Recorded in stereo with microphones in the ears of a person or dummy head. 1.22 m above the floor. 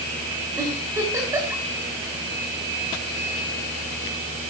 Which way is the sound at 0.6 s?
15° right (ahead or behind).